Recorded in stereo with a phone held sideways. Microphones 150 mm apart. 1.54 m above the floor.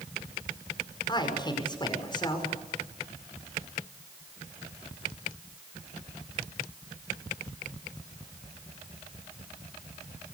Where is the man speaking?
30° left (ahead or behind), 5.5 m.